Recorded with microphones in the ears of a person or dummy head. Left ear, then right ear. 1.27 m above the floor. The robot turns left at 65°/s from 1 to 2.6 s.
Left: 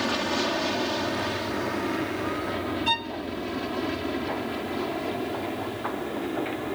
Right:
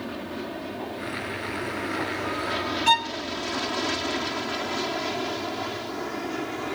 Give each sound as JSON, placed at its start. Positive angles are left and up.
{"t": 0.0, "sound": "an aircraft", "side_deg": 45}
{"t": 2.9, "sound": "a violin", "side_deg": -30}